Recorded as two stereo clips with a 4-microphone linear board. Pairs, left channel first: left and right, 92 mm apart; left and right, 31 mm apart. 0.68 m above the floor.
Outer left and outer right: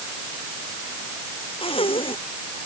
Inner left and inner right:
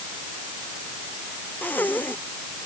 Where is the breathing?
85° left.